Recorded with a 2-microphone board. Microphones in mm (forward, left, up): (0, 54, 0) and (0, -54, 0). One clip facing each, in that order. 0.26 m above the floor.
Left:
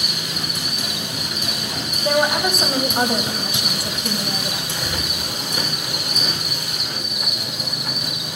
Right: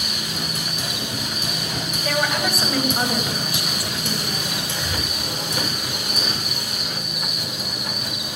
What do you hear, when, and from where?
0.0 s an insect: 20° left (ahead or behind), 2 m
2.0 s a woman speaking: 25° left (ahead or behind), 1.4 m
4.7 s breathing: 5° right (ahead or behind), 4 m